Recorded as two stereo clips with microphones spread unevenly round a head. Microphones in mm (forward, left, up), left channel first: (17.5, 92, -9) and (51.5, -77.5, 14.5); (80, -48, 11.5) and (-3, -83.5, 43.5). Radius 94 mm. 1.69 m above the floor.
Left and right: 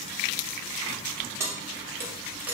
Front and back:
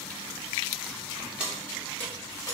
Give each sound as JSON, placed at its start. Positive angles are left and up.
{"t": 1.4, "sound": "keys jangling", "azimuth_deg": -130, "distance_m": 0.9}